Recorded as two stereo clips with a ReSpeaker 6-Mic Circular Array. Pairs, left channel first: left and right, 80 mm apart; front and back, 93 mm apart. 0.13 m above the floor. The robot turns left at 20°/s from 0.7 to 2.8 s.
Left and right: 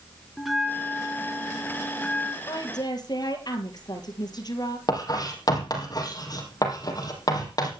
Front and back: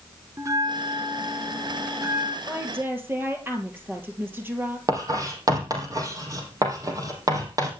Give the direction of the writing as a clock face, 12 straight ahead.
8 o'clock.